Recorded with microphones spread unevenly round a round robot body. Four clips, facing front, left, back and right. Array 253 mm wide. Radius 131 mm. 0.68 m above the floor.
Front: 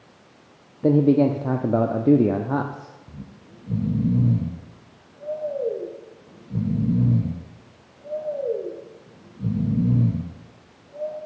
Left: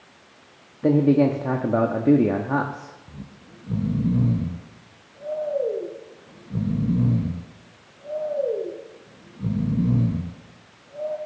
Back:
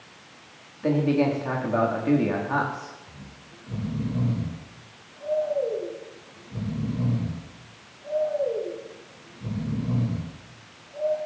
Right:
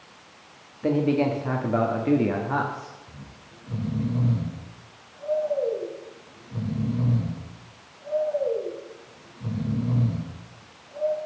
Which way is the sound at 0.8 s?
45° left.